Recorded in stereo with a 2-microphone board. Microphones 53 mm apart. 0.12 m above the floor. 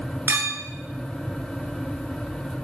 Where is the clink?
40° right (ahead or behind), 0.8 m.